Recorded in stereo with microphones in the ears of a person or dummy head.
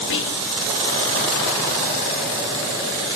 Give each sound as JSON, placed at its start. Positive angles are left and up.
{"t": 0.1, "sound": "whispering", "side_deg": 65, "distance_m": 1.0}